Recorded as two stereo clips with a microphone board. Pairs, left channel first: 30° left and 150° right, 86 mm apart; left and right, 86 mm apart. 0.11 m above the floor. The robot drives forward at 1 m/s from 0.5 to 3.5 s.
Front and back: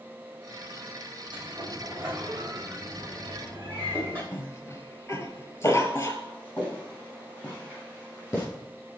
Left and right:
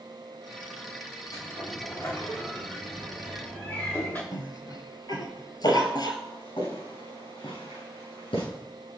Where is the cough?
75° left, 2 m.